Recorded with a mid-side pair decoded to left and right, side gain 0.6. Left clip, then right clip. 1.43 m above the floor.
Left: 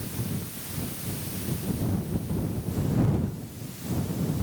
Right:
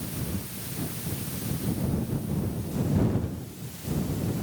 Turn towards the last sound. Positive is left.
No sound to turn to.